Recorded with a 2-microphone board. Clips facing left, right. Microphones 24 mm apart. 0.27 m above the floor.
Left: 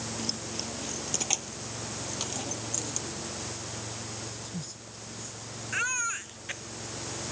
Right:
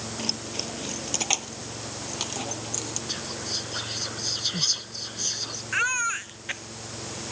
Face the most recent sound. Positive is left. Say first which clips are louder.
# right 5 dB
turn(degrees=-20)  # may be behind; listen again after turning